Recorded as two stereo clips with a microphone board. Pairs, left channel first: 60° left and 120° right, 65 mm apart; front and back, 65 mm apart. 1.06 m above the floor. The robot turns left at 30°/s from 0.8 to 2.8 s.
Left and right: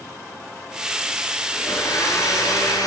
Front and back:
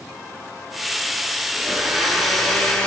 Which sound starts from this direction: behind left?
A blender, at 1.5 s.